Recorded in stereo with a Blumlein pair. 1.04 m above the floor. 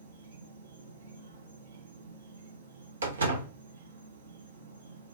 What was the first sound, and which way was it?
An insect, 65° right.